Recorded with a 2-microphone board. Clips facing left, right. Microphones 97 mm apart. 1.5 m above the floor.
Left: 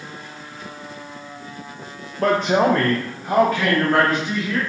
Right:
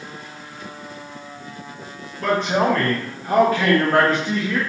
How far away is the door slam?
I don't hear a door slam.